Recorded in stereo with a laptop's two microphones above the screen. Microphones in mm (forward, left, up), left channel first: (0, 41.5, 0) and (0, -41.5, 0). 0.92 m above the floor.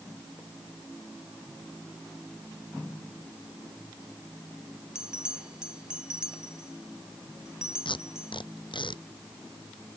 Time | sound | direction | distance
5.0 | a bell | 10° right (ahead or behind) | ?
7.8 | tape being pulled | 75° left (ahead or behind) | ?